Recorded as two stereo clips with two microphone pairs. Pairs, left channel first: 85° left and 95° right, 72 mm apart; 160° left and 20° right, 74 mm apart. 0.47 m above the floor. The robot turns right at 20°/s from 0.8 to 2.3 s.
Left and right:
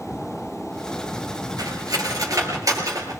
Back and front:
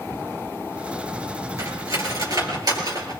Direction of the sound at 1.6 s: 65° right.